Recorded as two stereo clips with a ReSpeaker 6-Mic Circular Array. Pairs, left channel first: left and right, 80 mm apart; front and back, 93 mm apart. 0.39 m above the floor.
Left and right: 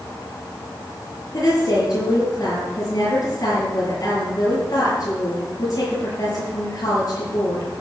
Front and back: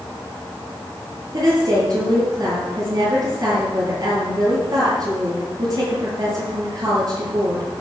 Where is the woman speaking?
130° left, 7.5 m.